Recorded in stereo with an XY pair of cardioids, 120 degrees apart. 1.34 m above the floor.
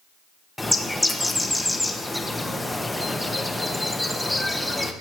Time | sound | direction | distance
0.6 | a bird | 5° left | 0.9 m